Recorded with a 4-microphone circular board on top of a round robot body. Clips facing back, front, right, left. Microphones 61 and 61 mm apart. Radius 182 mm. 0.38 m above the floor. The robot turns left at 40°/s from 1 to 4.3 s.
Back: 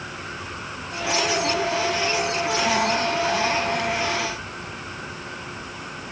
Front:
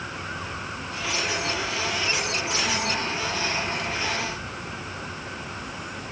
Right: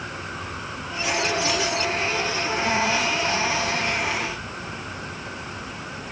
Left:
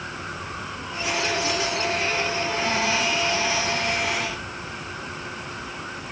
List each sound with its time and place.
Only background noise.